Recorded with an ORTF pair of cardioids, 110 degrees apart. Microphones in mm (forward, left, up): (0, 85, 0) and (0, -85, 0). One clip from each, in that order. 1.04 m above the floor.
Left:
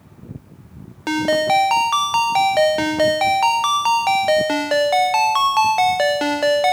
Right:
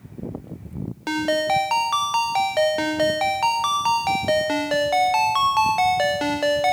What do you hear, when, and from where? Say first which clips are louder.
1.1 s a ringtone: left 4 dB; 20° left, 0.7 m